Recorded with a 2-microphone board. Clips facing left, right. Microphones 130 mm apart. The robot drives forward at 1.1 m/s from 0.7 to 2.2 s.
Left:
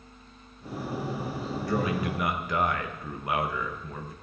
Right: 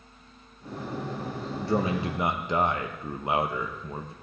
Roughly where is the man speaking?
Right.